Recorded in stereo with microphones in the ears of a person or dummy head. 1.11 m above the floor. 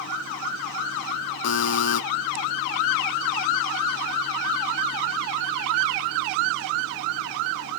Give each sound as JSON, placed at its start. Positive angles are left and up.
{"t": 1.4, "sound": "a buzzer", "side_deg": 70, "distance_m": 0.6}